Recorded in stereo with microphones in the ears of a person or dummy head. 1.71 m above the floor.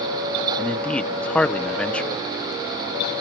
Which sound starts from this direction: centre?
A man speaking, at 0.6 s.